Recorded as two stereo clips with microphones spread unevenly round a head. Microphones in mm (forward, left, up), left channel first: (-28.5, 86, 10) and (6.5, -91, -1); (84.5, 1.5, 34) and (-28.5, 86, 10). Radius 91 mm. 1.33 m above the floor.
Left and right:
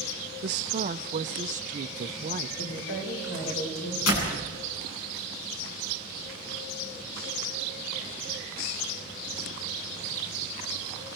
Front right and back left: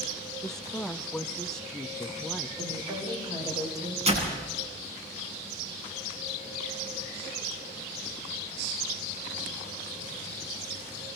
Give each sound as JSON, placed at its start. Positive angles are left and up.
{"t": 0.4, "sound": "a woman speaking", "azimuth_deg": -125, "distance_m": 0.7}
{"t": 2.6, "sound": "a woman speaking", "azimuth_deg": 80, "distance_m": 5.5}
{"t": 4.1, "sound": "a door slam", "azimuth_deg": 95, "distance_m": 8.5}